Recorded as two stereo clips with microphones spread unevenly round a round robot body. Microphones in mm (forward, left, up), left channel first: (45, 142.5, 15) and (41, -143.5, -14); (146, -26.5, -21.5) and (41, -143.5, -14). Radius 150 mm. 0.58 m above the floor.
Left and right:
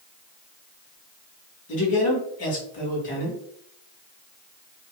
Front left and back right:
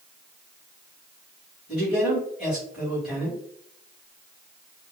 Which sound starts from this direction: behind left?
A man speaking, at 1.7 s.